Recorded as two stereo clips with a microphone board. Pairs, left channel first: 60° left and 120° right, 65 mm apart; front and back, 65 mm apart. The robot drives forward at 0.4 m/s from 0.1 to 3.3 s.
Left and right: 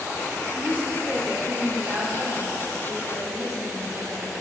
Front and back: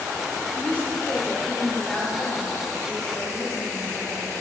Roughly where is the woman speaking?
Ahead right.